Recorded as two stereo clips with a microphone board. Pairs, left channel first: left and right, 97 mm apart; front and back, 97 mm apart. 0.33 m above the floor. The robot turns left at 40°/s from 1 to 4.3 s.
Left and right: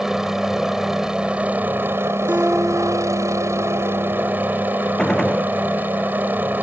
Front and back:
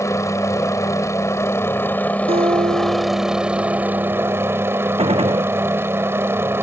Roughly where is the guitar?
Behind.